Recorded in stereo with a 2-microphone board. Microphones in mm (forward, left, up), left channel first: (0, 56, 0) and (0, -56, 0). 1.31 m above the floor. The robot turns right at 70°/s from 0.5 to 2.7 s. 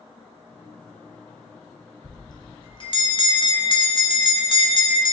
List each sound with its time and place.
2.0 s a bell: 45° left, 1.0 m; by 5.1 s 90° left, 1.0 m